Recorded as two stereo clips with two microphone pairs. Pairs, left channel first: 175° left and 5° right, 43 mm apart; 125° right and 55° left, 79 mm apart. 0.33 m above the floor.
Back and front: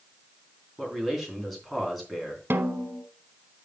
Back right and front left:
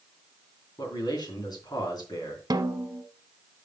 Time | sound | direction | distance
0.8 | a man speaking | 95° right | 3 m
2.5 | a snare drum | 25° left | 0.9 m